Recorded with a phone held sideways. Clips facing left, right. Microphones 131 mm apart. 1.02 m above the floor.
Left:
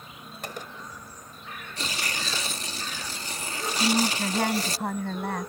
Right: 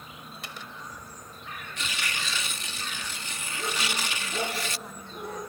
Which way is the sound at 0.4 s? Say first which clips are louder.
Left 6 dB; 50° left (ahead or behind).